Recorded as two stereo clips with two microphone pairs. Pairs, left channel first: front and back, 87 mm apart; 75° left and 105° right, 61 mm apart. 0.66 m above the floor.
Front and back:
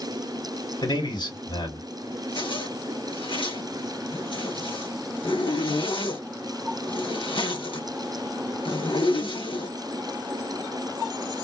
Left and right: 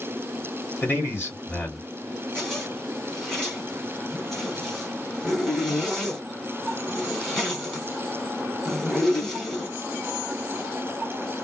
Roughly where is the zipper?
Ahead.